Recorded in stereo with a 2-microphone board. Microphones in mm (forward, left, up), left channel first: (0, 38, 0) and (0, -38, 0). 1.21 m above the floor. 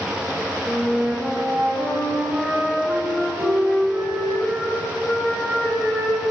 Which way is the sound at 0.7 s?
40° right (ahead or behind).